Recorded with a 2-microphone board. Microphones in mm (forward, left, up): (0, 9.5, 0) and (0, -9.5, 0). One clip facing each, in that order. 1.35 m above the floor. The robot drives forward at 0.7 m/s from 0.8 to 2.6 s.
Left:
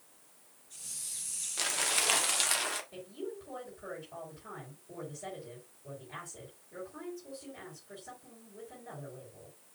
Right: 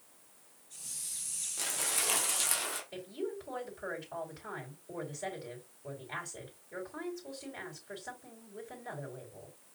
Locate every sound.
1.6 s crumpling: 40° left (ahead or behind), 1.0 m; by 2.8 s 30° left (ahead or behind), 1.4 m
2.9 s a woman speaking: 60° right (ahead or behind), 3.5 m